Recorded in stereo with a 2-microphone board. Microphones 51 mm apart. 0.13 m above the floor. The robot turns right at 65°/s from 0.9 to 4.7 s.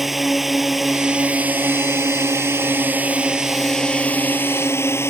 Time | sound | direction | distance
0.0 | a drone | 175° right | ?